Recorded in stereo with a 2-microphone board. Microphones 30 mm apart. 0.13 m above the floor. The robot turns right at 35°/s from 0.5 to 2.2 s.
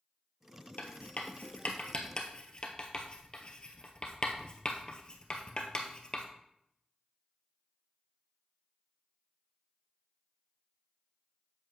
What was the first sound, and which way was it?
Writing, 70° left (ahead or behind).